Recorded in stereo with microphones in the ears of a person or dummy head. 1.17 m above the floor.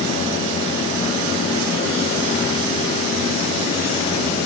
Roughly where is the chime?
No chime in this recording.